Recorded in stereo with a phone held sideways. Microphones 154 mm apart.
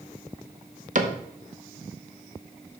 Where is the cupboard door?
55° right (ahead or behind), 0.8 m.